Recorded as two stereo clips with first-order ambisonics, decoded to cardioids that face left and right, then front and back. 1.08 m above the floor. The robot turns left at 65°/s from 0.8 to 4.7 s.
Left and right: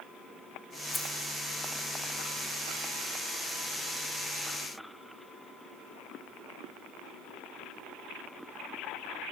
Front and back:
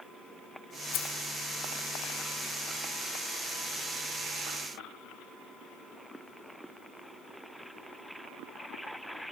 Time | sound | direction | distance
0.9 | keys jangling | 5° left | 0.7 m